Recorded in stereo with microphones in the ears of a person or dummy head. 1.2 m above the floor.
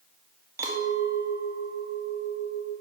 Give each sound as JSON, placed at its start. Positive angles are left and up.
{"t": 0.6, "sound": "a clink", "side_deg": -10, "distance_m": 1.3}